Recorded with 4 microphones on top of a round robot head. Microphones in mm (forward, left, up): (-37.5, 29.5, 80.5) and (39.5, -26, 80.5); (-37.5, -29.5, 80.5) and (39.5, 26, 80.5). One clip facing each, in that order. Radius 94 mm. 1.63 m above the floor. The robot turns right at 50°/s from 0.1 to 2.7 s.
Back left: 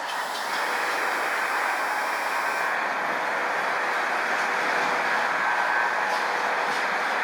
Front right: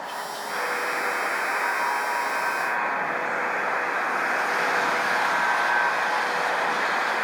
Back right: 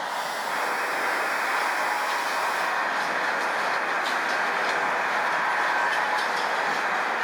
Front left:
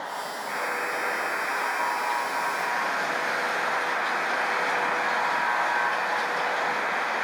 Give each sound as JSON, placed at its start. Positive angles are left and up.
{"t": 0.5, "sound": "a buzzer", "azimuth_deg": 155, "distance_m": 4.5}